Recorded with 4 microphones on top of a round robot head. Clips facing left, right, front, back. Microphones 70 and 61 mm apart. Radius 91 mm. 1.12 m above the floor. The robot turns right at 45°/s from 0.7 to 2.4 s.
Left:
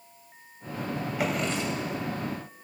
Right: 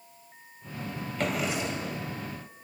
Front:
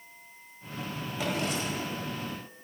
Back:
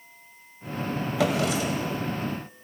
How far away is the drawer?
About 2.0 m.